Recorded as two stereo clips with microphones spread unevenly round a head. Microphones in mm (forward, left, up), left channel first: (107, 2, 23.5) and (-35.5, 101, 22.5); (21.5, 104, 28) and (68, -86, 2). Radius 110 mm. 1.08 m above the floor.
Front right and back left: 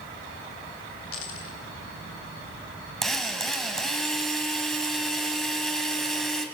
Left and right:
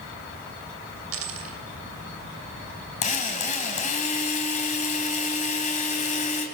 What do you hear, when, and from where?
1.1 s a dropped coin: 65° right, 2.5 m
3.0 s a drill: 55° left, 3 m